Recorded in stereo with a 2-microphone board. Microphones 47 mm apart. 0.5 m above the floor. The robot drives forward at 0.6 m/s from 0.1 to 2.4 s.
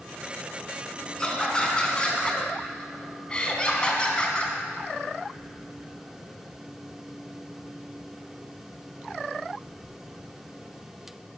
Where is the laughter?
15° left (ahead or behind), 4 m; by 4.5 s 20° left (ahead or behind), 3.5 m.